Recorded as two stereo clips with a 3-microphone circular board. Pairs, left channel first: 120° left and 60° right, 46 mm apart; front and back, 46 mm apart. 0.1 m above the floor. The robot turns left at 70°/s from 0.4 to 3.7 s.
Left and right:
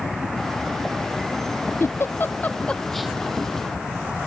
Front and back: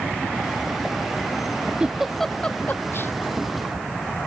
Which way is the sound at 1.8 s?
115° left.